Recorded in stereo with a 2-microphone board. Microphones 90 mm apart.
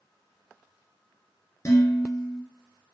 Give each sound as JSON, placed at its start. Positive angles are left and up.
{"t": 1.6, "sound": "dishes clattering", "side_deg": 35, "distance_m": 2.0}